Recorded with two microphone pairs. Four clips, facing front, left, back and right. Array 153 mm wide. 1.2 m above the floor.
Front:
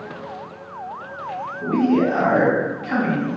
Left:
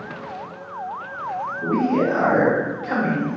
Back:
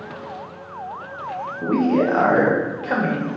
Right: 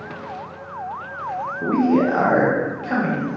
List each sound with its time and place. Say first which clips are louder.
1.6 s a man speaking: right 3 dB, even; 120° right, 0.9 m; by 3.3 s 170° right, 1.3 m